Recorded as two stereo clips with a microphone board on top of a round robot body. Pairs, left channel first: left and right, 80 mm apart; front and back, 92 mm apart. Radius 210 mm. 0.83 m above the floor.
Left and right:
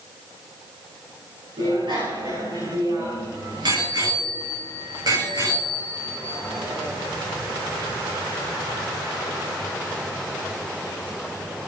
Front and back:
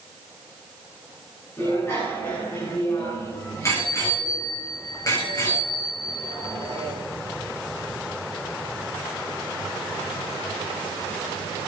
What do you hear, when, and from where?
1.6 s a bicycle bell: 65° right, 9 m; by 6.9 s 50° right, 11 m